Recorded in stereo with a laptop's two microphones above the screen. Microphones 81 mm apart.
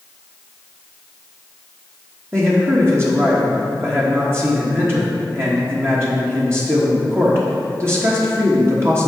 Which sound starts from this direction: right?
A man speaking, at 2.3 s.